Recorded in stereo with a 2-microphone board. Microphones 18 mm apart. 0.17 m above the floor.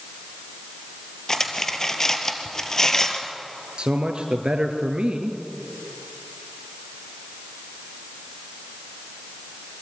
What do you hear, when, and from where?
1.3 s cutlery clinking: 25° left (ahead or behind), 2 m
3.8 s a man speaking: 60° right (ahead or behind), 3 m